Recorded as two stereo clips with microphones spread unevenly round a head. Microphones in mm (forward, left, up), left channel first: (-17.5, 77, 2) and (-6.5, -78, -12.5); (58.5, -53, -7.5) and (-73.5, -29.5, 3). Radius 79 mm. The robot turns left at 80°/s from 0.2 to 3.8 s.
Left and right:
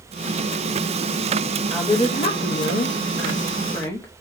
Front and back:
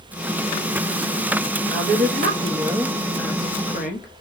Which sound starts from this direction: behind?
A woman speaking, at 1.7 s.